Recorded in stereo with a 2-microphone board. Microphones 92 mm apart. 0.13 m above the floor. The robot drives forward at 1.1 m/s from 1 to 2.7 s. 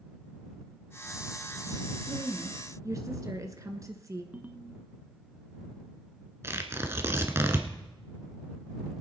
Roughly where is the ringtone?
Centre.